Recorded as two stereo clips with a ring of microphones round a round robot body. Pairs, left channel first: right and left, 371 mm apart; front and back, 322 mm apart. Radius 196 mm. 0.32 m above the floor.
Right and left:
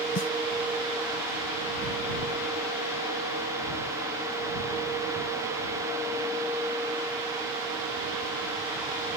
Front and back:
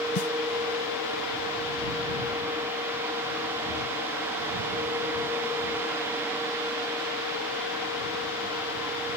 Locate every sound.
0.1 s a snare drum: 35° right